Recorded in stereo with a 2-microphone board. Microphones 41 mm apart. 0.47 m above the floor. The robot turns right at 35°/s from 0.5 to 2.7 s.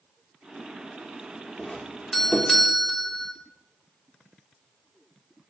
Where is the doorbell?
20° left (ahead or behind), 1.5 m; by 3.3 s 5° left (ahead or behind), 1.5 m.